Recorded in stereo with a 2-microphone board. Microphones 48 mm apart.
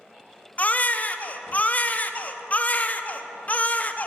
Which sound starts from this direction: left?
A baby crying, at 0.6 s.